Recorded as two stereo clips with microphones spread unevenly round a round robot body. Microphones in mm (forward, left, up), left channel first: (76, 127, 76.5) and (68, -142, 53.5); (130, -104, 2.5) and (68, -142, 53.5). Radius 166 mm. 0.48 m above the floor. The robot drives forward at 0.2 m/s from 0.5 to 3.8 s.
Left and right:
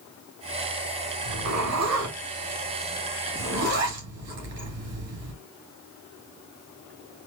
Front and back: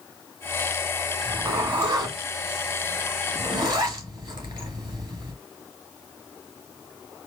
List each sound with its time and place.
1.2 s a zipper: 100° right, 3 m; by 5.3 s 110° right, 3 m